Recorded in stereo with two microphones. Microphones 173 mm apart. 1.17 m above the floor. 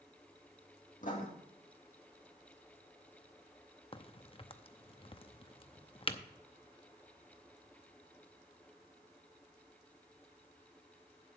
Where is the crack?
30° left (ahead or behind), 0.6 m.